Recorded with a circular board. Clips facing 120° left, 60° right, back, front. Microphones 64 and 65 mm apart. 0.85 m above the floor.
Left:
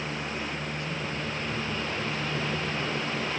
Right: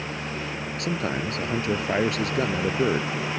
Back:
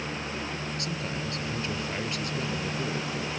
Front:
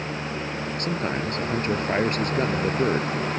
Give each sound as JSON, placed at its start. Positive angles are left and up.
{"t": 0.8, "sound": "a man speaking", "azimuth_deg": -45}